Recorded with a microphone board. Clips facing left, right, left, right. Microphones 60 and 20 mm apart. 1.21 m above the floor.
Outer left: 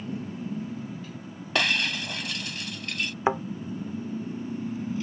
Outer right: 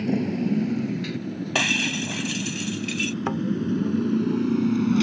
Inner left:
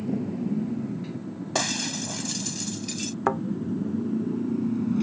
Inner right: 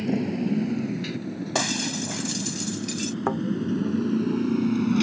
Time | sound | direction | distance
0.0 | a motorcycle | 70° right (ahead or behind) | ?
1.6 | breaking glass | 5° right (ahead or behind) | ?
3.3 | a thud | 25° left (ahead or behind) | ?